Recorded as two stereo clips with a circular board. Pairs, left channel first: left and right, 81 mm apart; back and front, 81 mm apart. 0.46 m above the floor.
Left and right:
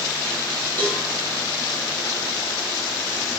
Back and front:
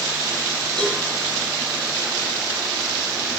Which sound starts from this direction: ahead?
A cowbell, at 0.8 s.